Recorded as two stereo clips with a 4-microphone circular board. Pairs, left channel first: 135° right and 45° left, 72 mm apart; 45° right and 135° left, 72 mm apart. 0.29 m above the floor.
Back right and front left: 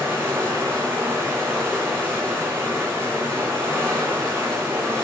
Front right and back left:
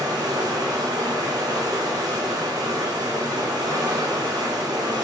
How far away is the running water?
About 2.0 m.